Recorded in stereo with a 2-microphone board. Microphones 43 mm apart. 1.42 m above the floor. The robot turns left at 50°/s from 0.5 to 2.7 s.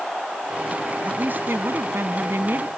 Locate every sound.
1.1 s a woman speaking: 40° right; by 2.7 s 125° right